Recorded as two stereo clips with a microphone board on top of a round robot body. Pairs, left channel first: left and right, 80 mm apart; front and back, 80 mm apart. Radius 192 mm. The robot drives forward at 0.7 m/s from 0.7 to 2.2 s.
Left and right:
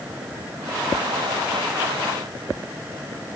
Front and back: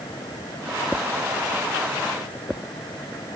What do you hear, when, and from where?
Only background noise.